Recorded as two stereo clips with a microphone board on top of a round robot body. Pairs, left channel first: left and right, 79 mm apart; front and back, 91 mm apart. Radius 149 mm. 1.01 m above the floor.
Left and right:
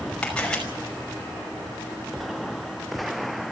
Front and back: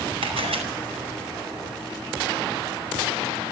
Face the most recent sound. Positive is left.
turn(degrees=170)